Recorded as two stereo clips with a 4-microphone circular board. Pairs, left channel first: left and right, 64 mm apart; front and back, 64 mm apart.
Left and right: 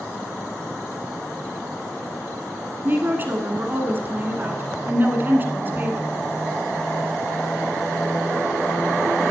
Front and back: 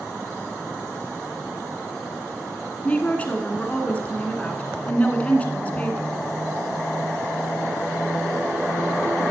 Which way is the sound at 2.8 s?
55° right.